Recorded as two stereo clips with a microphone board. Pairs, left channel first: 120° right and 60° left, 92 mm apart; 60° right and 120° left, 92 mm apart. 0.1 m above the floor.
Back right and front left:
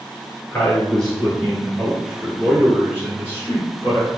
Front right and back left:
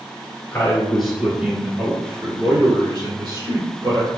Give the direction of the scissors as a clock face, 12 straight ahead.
No scissors in this recording.